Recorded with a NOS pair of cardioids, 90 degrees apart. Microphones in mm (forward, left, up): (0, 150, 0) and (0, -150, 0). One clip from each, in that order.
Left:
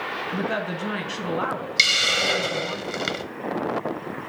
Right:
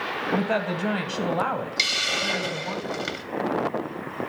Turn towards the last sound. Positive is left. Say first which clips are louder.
# left 5 dB
turn(degrees=25)